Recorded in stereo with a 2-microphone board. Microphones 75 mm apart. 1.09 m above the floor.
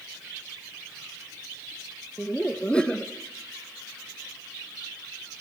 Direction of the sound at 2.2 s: 10° left (ahead or behind).